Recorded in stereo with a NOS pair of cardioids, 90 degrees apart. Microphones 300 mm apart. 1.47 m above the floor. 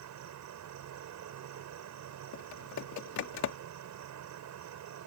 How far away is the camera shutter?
No camera shutter in this recording.